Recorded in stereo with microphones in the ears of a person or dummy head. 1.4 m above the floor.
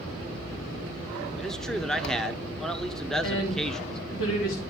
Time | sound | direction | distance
1.4 | a man speaking | centre (ahead or behind) | 1.0 m
3.2 | a woman speaking | 85° left | 3.5 m